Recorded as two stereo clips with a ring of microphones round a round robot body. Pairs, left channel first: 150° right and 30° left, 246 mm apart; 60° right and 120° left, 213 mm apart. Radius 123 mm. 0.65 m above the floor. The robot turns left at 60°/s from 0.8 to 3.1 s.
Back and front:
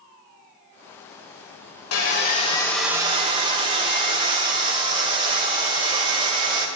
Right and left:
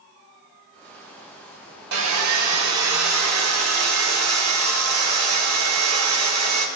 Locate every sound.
1.9 s sawing: 175° left, 1.5 m; by 6.7 s 100° left, 1.5 m